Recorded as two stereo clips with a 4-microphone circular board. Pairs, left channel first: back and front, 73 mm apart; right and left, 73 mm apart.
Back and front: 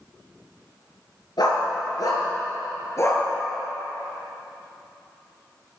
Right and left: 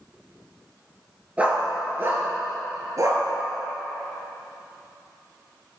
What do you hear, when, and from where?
1.4 s a dog barking: 160° left, 3.5 m; by 3.2 s 130° left, 4 m